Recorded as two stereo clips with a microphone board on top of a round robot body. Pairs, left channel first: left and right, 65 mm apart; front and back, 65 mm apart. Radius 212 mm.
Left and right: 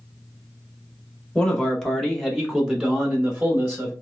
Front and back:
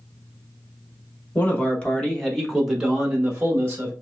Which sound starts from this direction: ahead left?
A man speaking, at 1.4 s.